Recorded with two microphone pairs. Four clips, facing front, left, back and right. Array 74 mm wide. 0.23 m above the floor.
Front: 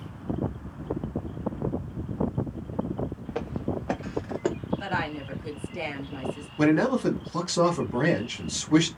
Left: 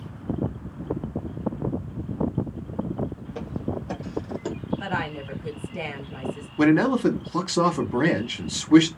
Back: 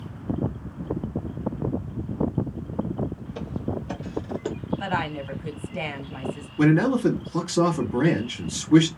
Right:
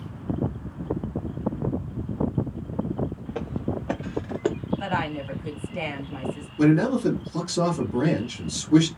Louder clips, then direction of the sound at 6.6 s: Left 1 dB, back 3 dB; 85° left.